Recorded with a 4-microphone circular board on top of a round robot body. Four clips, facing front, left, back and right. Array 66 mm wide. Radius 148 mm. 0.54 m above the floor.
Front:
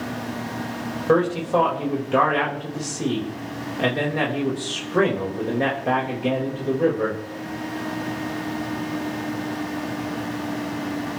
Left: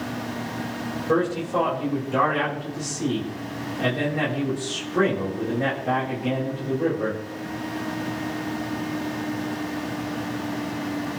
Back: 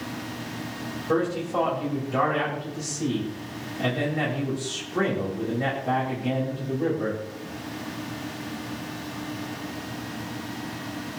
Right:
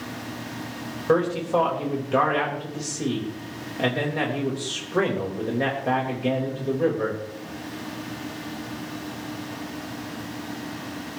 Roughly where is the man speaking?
Ahead right.